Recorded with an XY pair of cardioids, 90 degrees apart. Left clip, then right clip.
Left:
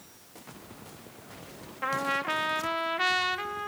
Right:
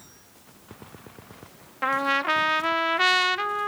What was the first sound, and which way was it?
A trumpet, 50° right.